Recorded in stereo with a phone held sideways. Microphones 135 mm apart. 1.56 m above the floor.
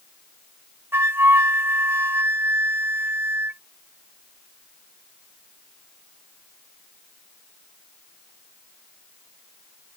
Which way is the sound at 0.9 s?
15° right (ahead or behind).